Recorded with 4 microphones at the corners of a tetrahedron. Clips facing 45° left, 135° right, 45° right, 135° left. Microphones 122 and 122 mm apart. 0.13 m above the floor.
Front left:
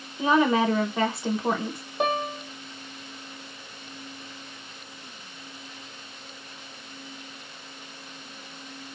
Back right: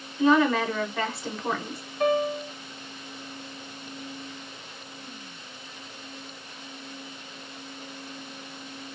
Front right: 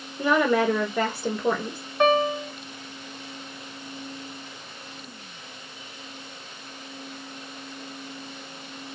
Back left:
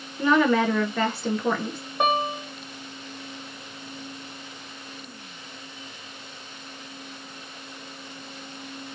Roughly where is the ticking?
I don't hear ticking.